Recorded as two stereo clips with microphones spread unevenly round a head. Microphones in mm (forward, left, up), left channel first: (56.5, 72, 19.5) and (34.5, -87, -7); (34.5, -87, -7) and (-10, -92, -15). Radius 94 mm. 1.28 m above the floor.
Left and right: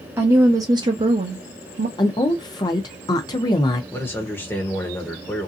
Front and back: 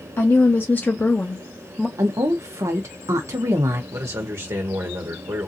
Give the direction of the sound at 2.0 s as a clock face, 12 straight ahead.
7 o'clock.